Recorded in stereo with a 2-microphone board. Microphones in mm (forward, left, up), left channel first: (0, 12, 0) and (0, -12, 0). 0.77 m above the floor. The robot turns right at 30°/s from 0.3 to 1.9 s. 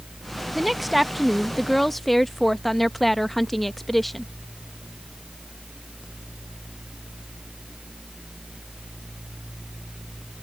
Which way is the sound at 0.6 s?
5° right (ahead or behind).